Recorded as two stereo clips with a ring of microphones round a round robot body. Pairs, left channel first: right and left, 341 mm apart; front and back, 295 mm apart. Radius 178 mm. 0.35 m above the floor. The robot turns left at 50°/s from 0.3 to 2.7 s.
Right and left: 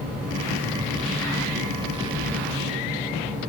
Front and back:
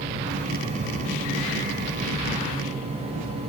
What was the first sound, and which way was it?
Only background noise.